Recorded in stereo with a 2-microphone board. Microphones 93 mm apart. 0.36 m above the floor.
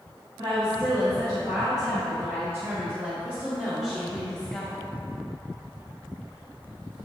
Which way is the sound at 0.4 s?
60° right (ahead or behind).